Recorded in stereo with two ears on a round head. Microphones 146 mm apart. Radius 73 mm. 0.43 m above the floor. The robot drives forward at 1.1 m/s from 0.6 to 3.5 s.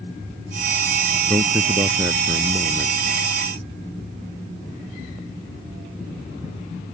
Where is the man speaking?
20° right (ahead or behind); by 3.0 s 15° right (ahead or behind).